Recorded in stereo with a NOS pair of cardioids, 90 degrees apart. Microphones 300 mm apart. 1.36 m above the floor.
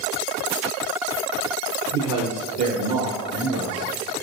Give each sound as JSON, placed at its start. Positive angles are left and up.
{"t": 1.9, "sound": "a man speaking", "azimuth_deg": -70, "distance_m": 0.9}